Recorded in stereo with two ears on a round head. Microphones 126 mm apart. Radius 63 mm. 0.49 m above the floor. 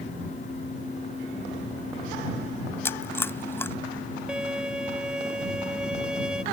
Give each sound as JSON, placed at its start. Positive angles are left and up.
{"t": 2.9, "sound": "chewing", "side_deg": 20}
{"t": 4.3, "sound": "a violin", "side_deg": -5}